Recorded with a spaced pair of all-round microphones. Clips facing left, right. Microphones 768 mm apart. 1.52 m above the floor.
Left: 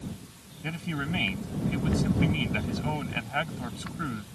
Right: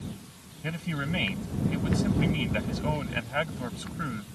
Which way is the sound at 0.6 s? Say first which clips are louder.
Even; 10° right (ahead or behind).